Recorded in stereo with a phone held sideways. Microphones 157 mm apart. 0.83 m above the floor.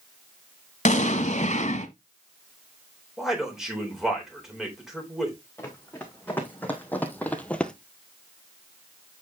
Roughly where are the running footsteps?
Centre.